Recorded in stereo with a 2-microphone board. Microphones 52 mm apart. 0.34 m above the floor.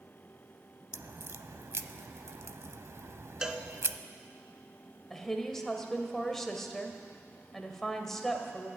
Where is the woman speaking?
5° left (ahead or behind), 1.6 m.